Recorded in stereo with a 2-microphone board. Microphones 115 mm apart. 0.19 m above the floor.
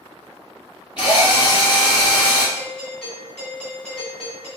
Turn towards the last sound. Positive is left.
turn(degrees=5)  # may be behind; listen again after turning